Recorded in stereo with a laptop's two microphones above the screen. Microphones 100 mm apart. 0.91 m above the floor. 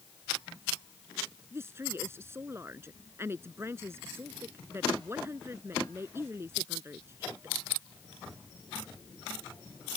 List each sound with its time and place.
1.5 s a woman speaking: 25° right (ahead or behind)